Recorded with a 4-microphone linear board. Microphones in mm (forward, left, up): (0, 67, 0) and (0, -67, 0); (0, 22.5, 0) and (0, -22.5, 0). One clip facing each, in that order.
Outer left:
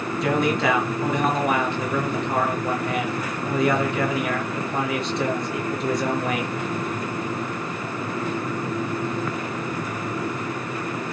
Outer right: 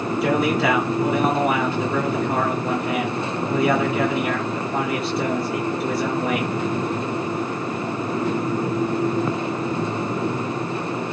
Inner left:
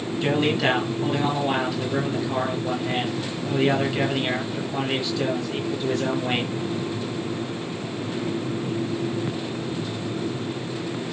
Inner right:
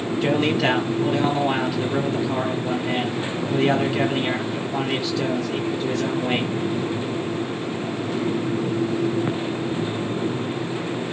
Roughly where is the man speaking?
Centre.